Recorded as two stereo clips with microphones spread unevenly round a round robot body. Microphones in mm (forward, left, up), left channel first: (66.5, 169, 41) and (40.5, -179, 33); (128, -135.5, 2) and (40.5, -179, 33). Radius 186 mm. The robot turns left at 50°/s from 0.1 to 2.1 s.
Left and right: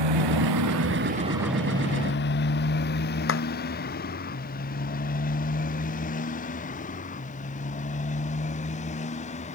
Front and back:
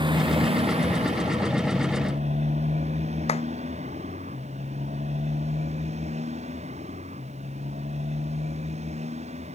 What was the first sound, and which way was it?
A motorcycle, 115° right.